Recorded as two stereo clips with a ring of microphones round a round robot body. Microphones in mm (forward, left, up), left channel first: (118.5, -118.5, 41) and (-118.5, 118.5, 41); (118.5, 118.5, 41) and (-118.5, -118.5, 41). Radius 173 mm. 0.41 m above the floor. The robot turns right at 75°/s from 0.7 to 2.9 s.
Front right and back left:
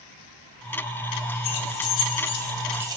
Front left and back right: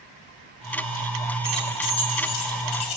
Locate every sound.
1.4 s keys jangling: 55° right, 2 m; by 3.0 s 55° left, 2 m